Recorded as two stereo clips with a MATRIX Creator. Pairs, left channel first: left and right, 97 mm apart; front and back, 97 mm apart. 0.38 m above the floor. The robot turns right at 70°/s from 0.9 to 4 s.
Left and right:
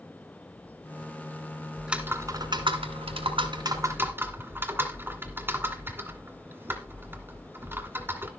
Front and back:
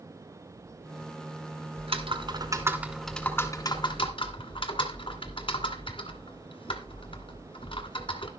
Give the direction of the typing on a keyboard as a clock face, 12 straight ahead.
6 o'clock.